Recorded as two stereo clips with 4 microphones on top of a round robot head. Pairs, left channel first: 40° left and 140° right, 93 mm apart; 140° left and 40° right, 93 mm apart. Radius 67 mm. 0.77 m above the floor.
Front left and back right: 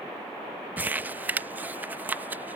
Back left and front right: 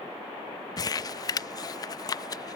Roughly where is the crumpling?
Behind left.